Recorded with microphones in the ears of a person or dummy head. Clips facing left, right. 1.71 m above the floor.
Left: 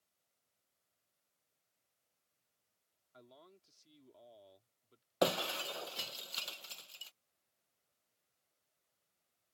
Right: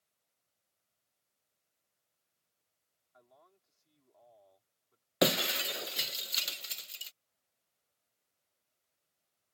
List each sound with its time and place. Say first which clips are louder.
3.1 s a man speaking: left 4 dB; 45° left (ahead or behind)
5.2 s breaking glass: right 4 dB; 25° right (ahead or behind)